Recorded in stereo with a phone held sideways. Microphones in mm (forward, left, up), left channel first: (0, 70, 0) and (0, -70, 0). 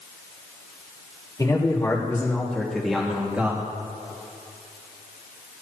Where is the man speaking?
25° left (ahead or behind), 3 m; by 3.6 s 10° right (ahead or behind), 3 m.